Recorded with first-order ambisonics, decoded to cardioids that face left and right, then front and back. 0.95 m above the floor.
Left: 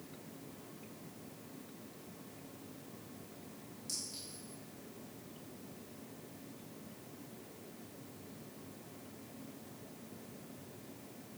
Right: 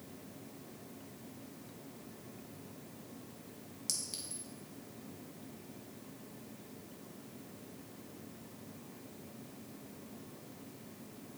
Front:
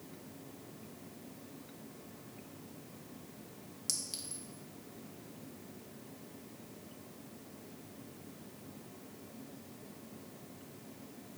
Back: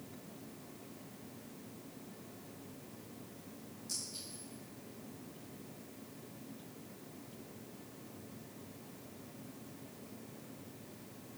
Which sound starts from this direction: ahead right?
A clink, at 3.9 s.